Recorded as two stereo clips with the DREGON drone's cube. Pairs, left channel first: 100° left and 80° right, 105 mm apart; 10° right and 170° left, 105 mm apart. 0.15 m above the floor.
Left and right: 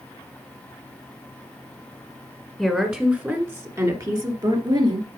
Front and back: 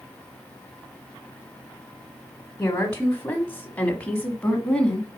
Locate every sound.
2.6 s a woman speaking: 10° left, 1.2 m; by 5.1 s 90° right, 1.6 m